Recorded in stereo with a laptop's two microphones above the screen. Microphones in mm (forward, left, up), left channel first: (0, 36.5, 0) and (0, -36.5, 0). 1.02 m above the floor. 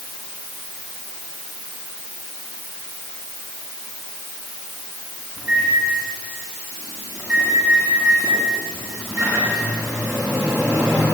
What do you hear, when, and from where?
5.4 s a microwave: 40° right (ahead or behind), 8.5 m